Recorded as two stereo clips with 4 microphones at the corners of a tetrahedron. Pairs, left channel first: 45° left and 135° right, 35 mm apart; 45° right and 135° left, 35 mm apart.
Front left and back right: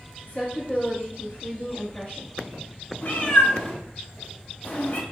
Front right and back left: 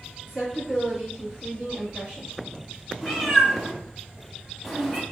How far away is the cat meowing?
About 1.0 m.